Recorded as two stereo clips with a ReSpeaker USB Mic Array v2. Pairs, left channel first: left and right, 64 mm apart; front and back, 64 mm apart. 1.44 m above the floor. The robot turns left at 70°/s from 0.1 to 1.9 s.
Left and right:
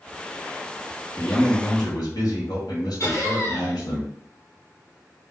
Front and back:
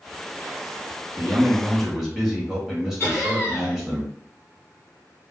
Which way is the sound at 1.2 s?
145° left.